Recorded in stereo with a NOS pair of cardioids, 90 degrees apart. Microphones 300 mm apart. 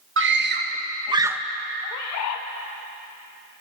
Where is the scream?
45° right, 1.5 m; by 1.4 s 5° right, 1.0 m.